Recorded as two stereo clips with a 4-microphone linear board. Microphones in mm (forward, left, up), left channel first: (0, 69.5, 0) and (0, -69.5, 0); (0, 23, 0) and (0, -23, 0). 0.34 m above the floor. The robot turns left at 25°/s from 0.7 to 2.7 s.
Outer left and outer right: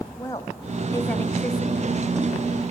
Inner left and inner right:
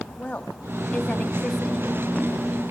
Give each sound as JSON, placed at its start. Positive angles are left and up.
{"t": 0.2, "sound": "a woman speaking", "azimuth_deg": 25, "distance_m": 1.6}